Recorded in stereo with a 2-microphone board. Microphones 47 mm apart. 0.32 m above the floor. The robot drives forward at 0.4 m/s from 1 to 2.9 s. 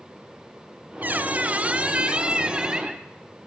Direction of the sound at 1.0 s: 40° right (ahead or behind).